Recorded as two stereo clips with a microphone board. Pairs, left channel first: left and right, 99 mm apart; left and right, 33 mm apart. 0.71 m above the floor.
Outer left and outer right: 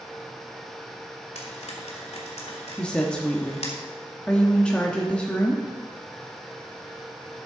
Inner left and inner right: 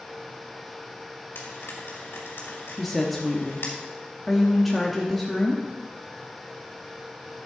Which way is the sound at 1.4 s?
85° left.